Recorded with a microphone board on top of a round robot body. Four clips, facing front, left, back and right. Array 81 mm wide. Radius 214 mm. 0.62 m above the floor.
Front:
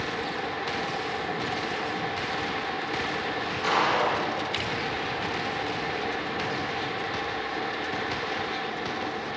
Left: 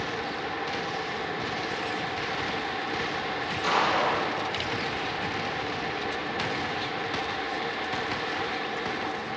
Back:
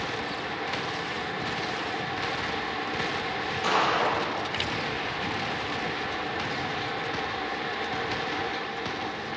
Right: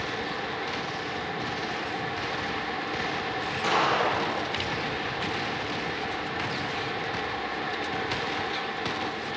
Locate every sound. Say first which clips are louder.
3.6 s a gunshot: even, front 1 dB; 100° right, 6.5 m